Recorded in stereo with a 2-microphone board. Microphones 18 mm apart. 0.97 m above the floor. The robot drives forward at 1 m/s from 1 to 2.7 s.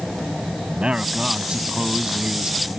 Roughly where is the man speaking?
Right.